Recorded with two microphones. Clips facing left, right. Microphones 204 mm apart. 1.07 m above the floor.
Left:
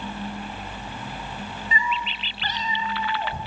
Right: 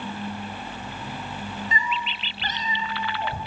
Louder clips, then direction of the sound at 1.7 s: Left 1 dB; 40° right (ahead or behind).